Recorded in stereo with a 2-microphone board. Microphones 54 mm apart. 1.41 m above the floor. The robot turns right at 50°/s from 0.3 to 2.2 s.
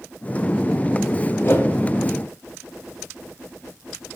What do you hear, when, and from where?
1.4 s a whoosh: 40° left (ahead or behind), 0.7 m; by 1.7 s 30° left (ahead or behind), 0.7 m